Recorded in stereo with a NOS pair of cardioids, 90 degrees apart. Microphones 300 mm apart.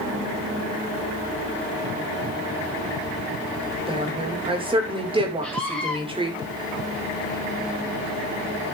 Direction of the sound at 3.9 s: 15° right.